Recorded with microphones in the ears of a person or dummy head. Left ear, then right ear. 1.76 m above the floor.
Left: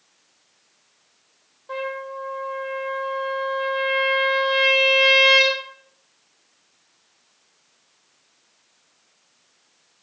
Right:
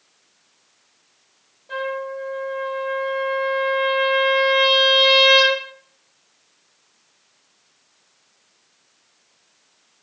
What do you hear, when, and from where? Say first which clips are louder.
1.7 s a trumpet: right 3 dB; 70° left (ahead or behind), 3.5 m